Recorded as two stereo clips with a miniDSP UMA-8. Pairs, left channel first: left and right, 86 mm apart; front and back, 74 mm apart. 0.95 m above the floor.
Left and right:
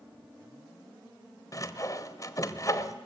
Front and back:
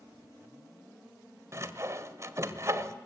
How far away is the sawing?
About 1.2 m.